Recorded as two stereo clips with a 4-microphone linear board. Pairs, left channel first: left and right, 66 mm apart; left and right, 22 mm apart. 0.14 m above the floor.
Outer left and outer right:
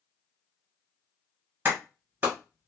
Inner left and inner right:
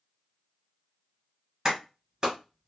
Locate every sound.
1.6 s a clap: 30° right (ahead or behind), 1.6 m